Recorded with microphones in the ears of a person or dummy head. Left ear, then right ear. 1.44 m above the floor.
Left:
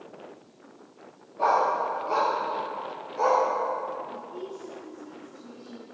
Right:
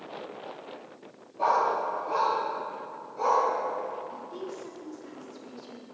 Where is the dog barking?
5° left (ahead or behind), 1.1 m; by 3.5 s 30° left (ahead or behind), 3 m.